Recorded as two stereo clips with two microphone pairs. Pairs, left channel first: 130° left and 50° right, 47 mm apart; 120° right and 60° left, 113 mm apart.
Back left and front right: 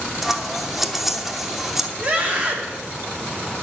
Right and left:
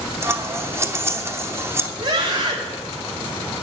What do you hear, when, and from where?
0.2 s scissors: 25° left, 0.8 m
2.0 s a scream: 10° left, 3 m